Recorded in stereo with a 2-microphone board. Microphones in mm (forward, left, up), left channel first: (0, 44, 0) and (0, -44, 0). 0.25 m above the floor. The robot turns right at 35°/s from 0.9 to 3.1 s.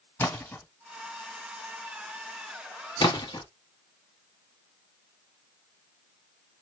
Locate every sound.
0.2 s a splash: 20° left (ahead or behind), 2 m
3.0 s a splash: 60° left (ahead or behind), 1.1 m